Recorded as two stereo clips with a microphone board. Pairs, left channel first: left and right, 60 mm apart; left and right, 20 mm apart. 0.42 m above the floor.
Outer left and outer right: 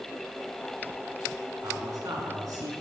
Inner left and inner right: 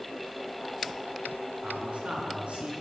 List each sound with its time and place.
1.6 s a man speaking: 75° right (ahead or behind), 4 m